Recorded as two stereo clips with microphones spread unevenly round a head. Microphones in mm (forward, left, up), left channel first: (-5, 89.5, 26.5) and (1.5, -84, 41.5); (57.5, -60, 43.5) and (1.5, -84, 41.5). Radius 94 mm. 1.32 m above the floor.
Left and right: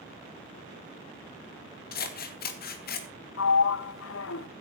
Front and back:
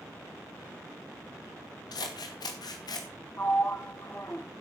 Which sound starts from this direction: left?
A sliding door, at 3.4 s.